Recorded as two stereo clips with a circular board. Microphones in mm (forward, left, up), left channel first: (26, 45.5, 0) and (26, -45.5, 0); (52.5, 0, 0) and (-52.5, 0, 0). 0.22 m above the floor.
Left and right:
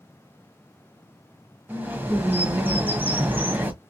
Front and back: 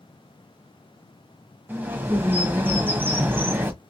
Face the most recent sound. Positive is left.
turn(degrees=-135)